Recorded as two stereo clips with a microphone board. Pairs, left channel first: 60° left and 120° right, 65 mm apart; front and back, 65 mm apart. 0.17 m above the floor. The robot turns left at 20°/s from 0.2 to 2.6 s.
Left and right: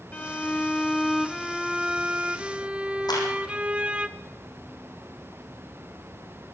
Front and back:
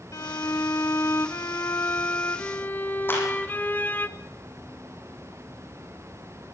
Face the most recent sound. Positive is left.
turn(degrees=60)